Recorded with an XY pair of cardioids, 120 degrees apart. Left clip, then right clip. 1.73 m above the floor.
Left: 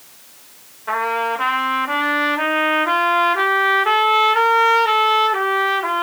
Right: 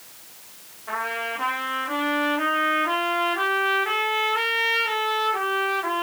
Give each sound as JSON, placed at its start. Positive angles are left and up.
{"t": 0.9, "sound": "a trumpet", "azimuth_deg": 45, "distance_m": 4.0}